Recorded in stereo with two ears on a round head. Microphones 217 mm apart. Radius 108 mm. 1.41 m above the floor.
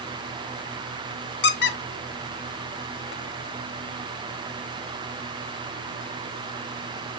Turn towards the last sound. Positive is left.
turn(degrees=45)  # may be behind; listen again after turning